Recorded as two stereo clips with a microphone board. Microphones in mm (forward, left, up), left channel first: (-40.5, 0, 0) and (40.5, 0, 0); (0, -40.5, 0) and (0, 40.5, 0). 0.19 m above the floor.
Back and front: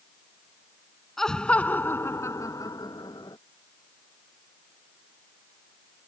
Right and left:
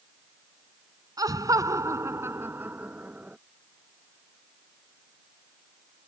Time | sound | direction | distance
1.2 | laughter | 95° left | ?